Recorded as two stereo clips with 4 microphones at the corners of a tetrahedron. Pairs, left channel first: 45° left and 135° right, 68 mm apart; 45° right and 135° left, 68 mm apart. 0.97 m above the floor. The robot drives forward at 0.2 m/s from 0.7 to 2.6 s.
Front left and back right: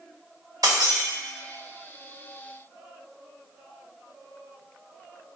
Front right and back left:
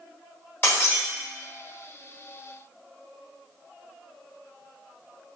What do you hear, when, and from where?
0.6 s breaking glass: 105° right, 1.1 m; by 1.0 s 110° right, 1.1 m